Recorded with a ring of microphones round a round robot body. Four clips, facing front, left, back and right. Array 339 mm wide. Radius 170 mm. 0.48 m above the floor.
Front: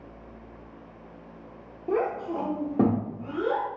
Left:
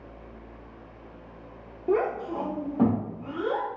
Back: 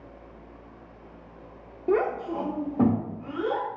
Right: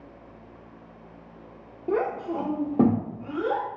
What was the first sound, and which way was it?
A child speaking, 175° right.